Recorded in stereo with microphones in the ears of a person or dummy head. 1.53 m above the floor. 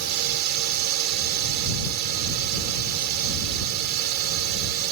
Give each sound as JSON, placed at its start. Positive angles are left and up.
{"t": 0.0, "sound": "a drone", "side_deg": -55}